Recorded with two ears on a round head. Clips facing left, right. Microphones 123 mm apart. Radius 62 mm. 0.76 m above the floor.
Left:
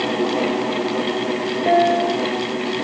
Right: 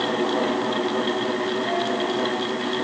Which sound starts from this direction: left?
A piano, at 1.7 s.